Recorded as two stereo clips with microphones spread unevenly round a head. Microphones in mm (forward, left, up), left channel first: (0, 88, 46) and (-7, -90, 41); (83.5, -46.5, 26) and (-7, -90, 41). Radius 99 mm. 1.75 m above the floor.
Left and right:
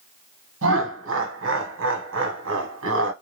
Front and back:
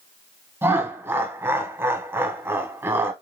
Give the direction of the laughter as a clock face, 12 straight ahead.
3 o'clock.